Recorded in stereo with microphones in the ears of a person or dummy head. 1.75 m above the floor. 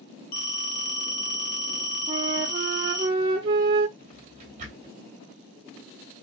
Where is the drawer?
35° right (ahead or behind), 2.5 m.